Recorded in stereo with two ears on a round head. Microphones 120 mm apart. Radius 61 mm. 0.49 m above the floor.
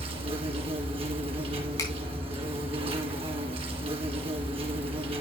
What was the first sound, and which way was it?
An insect, 45° right (ahead or behind).